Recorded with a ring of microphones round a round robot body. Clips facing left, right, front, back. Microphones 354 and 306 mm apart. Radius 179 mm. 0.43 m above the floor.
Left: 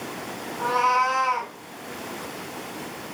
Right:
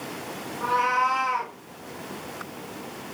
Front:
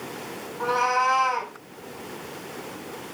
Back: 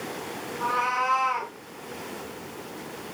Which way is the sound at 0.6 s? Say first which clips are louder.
Left 3 dB, front 9 dB; 25° left.